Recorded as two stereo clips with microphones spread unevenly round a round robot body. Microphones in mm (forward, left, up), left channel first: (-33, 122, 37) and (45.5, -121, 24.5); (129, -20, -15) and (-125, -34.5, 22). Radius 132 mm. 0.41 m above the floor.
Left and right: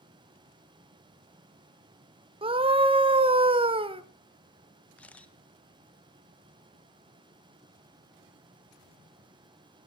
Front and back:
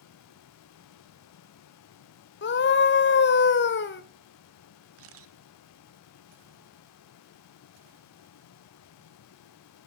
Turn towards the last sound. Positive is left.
turn(degrees=-165)